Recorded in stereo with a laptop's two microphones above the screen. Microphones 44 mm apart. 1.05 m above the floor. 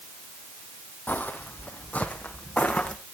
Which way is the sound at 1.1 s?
45° left (ahead or behind).